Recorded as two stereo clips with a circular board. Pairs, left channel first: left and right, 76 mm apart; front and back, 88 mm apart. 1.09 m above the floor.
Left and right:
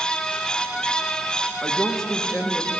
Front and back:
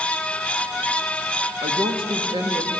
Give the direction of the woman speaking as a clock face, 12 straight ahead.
6 o'clock.